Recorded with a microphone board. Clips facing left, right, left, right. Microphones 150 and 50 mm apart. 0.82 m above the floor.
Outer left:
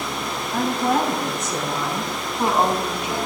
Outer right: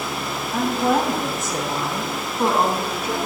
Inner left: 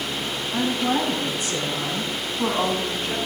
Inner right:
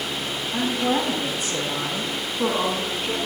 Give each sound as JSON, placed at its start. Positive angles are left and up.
{"t": 0.5, "sound": "a woman speaking", "side_deg": 0, "distance_m": 6.5}